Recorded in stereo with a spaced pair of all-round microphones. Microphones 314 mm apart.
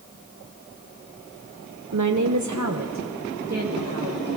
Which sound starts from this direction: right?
A woman speaking, at 1.9 s.